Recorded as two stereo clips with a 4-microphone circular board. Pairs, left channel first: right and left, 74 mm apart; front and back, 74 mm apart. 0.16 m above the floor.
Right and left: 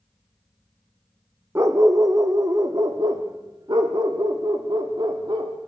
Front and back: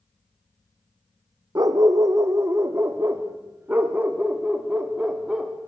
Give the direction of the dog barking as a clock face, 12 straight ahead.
7 o'clock.